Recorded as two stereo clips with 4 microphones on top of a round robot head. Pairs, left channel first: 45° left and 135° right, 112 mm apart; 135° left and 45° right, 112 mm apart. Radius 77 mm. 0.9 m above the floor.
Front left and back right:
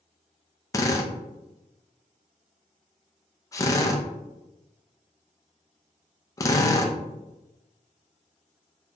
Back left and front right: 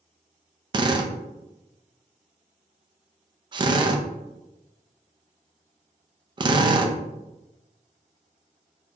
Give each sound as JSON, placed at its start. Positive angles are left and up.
{"t": 0.7, "sound": "a drill", "azimuth_deg": -10, "distance_m": 0.6}